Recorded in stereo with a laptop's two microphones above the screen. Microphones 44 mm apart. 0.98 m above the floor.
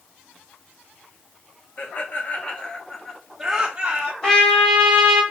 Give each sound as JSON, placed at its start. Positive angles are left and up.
{"t": 1.8, "sound": "laughter", "side_deg": 50, "distance_m": 1.0}
{"t": 4.2, "sound": "a trumpet", "side_deg": 20, "distance_m": 1.3}